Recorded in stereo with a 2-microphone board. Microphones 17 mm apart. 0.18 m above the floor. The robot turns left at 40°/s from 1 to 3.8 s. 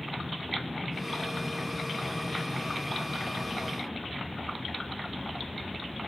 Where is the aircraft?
165° right; by 6.1 s 85° left.